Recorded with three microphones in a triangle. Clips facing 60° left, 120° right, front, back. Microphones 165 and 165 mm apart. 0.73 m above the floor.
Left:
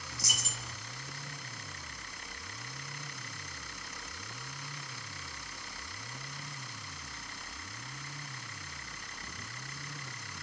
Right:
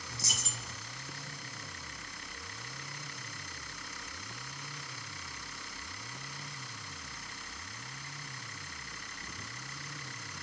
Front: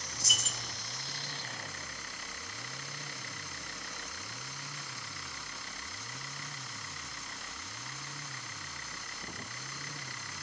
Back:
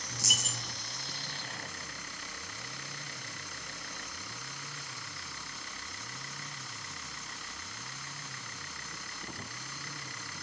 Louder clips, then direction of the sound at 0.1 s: Even, back 3 dB; 175° left.